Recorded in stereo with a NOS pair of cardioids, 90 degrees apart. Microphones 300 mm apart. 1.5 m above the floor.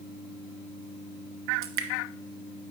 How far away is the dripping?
About 0.8 m.